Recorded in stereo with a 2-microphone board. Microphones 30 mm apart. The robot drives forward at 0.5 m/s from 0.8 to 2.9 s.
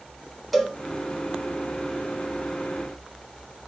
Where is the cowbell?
Centre (ahead or behind), 0.8 m.